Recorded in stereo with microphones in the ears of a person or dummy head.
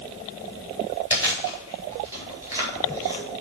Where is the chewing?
15° right (ahead or behind), 4 m.